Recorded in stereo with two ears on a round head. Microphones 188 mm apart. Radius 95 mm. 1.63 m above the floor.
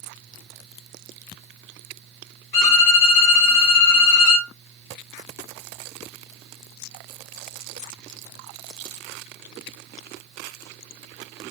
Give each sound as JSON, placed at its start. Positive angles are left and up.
{"t": 2.5, "sound": "a violin", "side_deg": 40, "distance_m": 2.0}